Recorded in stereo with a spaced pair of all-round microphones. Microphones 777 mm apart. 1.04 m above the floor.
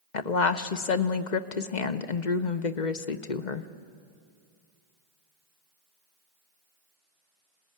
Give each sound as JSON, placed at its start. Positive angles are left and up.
{"t": 0.1, "sound": "a woman speaking", "side_deg": 65, "distance_m": 1.0}